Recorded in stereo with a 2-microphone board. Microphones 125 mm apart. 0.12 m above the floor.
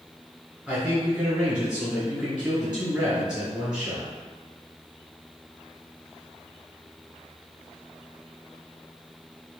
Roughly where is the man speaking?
Centre.